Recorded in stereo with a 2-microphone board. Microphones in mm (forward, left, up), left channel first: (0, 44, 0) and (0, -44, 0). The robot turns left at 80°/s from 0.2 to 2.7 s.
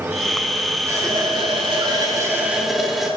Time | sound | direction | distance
0.9 | a running tap | 35° right | 5 m